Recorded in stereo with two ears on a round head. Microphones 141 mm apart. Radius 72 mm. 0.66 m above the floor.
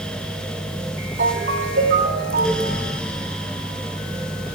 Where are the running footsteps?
I don't hear running footsteps.